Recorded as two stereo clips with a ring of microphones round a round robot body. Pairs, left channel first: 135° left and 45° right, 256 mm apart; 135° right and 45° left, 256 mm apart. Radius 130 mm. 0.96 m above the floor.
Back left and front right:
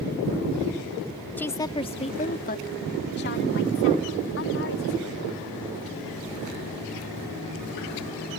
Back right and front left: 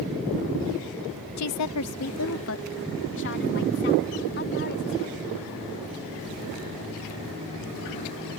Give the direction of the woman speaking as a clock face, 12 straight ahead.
5 o'clock.